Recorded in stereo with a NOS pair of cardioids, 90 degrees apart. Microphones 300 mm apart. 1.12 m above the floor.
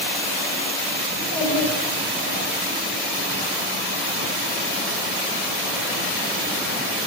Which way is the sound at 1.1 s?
55° left.